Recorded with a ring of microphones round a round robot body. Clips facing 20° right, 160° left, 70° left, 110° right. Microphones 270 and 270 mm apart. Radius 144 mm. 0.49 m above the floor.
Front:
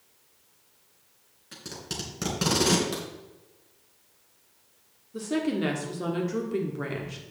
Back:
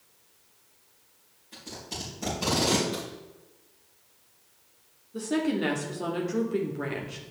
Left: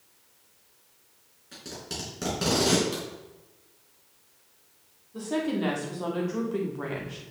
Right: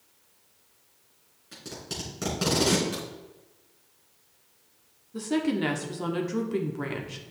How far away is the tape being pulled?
About 3 m.